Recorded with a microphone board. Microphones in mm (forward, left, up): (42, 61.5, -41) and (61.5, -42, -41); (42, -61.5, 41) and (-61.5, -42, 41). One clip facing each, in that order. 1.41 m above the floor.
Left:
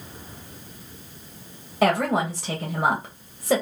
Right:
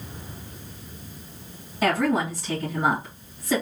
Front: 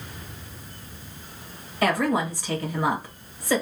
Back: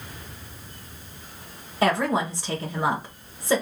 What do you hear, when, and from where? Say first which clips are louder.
1.8 s a woman speaking: left 1 dB, even; 105° left, 2 m